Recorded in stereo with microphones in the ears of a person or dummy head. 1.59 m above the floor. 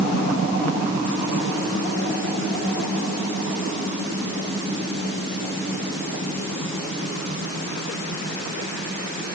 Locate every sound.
Only background noise.